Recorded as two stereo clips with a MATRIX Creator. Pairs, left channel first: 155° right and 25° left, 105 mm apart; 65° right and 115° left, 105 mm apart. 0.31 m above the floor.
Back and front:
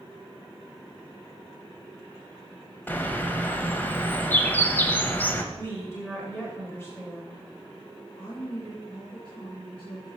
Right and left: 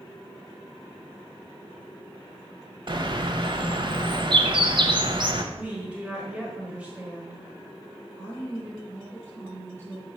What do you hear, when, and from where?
2.9 s a bird: 135° left, 0.7 m
5.5 s a woman speaking: 175° left, 1.5 m
8.2 s a woman speaking: straight behind, 2.5 m